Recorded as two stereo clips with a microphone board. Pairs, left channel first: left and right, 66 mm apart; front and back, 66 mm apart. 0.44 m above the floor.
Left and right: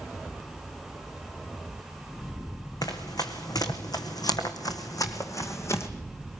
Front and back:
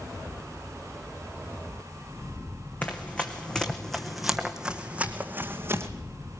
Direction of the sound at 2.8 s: 70° left.